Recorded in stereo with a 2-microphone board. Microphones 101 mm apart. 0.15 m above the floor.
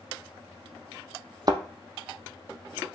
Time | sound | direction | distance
1.5 | a thud | 45° right (ahead or behind) | 0.7 m